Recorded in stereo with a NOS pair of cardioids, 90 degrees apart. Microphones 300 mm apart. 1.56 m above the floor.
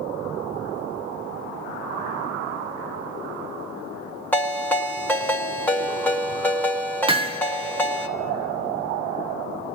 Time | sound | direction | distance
4.3 | a ringtone | 5° left | 1.9 m
7.1 | hammering | 20° right | 1.3 m